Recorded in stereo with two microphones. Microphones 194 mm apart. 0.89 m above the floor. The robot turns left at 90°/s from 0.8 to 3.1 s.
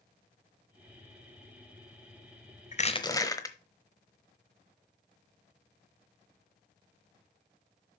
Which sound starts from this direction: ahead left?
Crushing, at 2.7 s.